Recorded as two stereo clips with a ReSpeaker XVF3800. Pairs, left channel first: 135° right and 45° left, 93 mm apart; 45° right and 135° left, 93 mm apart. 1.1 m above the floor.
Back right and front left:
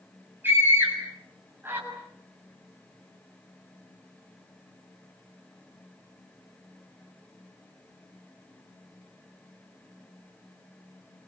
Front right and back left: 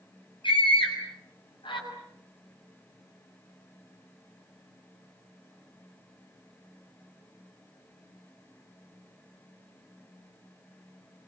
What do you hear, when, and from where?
0.4 s a scream: 20° right, 6.5 m